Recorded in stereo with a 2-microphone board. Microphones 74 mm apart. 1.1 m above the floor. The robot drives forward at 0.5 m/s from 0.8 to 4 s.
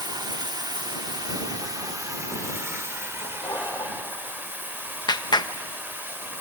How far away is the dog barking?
About 6 m.